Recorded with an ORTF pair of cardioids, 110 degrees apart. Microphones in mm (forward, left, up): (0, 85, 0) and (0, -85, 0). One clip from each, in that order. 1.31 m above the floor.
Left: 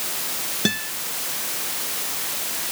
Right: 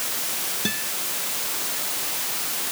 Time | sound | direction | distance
0.7 | a guitar | 45° left | ?